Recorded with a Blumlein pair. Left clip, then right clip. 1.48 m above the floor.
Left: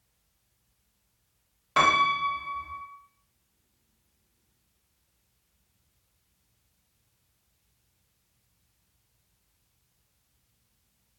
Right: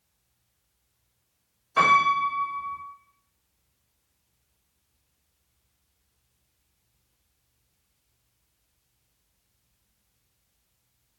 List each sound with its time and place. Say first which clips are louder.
1.8 s a piano: right 2 dB; 50° left, 1.0 m